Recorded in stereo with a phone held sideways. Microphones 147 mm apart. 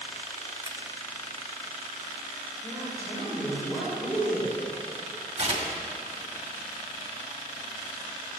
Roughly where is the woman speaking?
Centre.